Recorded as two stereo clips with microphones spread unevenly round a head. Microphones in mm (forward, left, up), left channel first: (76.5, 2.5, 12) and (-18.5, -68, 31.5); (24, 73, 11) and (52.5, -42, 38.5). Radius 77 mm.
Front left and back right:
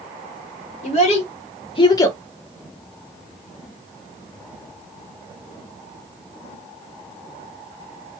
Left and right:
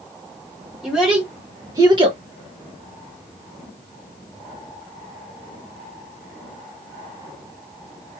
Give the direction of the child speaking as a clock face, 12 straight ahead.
12 o'clock.